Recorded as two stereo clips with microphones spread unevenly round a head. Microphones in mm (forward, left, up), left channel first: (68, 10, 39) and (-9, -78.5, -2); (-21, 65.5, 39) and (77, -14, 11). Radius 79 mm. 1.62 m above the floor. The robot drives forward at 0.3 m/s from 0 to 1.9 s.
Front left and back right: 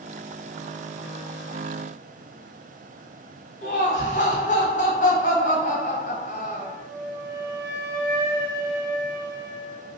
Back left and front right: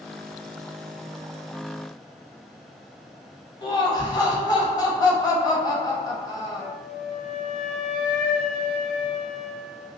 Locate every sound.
3.6 s laughter: 85° left, 1.0 m
6.6 s a flute: 175° right, 1.8 m